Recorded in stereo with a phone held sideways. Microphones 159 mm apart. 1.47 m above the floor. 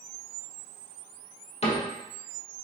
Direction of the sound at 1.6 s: 45° left (ahead or behind).